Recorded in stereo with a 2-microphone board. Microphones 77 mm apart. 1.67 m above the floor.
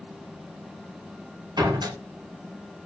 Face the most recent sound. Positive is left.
turn(degrees=-65)  # may be behind; listen again after turning